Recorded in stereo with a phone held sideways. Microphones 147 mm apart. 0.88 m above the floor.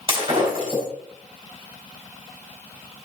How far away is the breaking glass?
About 3.5 m.